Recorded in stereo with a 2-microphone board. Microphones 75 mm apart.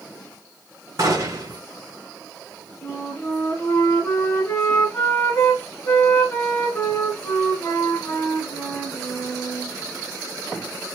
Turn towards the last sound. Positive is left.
turn(degrees=25)  # may be behind; listen again after turning